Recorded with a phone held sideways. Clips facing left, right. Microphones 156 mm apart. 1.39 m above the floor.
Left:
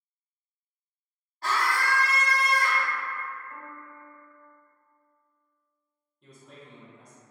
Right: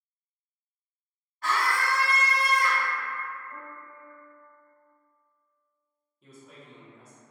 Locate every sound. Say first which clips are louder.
1.4 s a scream: even; 35° left (ahead or behind), 1.1 m
3.5 s a piano: even; 5° right (ahead or behind), 1.3 m
6.2 s a man speaking: even; 5° right (ahead or behind), 1.0 m